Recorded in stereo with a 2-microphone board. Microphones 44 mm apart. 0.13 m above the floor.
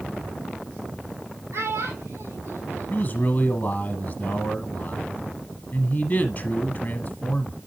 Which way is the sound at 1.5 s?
70° right (ahead or behind).